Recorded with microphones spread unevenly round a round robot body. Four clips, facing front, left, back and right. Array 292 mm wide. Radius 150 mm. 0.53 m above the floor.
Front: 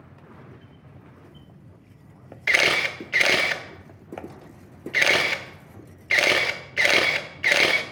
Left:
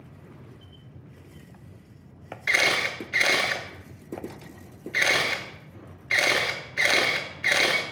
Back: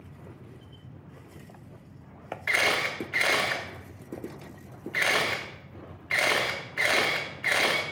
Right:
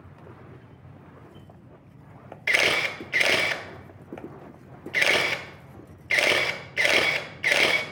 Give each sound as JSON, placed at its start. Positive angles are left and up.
{"t": 2.5, "sound": "a camera shutter", "azimuth_deg": -20, "distance_m": 0.7}